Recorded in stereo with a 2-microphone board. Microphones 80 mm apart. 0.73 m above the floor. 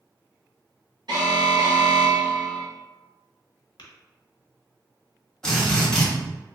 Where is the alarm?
70° right (ahead or behind), 1.5 m.